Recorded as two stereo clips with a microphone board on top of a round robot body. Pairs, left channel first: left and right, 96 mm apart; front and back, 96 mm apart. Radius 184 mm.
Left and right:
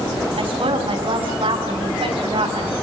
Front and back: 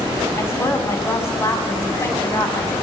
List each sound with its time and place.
0.4 s a woman speaking: 60° right, 6.5 m